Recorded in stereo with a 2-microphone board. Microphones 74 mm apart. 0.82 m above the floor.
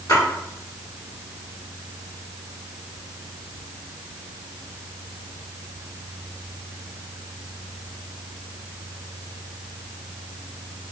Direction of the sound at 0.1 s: 60° left (ahead or behind).